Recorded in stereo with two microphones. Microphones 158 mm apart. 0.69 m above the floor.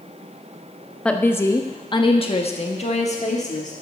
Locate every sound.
1.1 s a woman speaking: 5° left (ahead or behind), 0.9 m; by 3.7 s 50° left (ahead or behind), 1.8 m